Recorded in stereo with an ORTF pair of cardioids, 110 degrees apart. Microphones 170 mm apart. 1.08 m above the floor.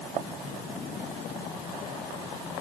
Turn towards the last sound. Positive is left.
No sound to turn to.